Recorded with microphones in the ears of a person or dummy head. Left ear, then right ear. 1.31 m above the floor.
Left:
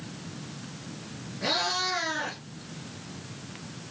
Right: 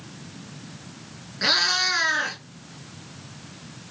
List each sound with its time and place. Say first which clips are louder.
1.4 s a cat meowing: right 7 dB; 70° right (ahead or behind), 4 m